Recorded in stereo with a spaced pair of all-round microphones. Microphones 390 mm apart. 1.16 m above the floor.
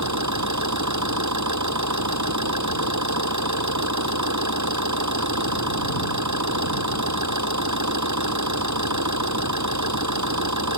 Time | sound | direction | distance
0.0 | an engine running | 45° right (ahead or behind) | ?